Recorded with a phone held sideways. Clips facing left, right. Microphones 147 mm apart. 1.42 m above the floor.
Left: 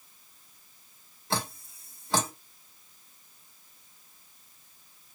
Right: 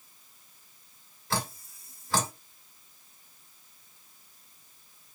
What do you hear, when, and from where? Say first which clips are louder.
1.3 s dripping: even; 20° left (ahead or behind), 1.3 m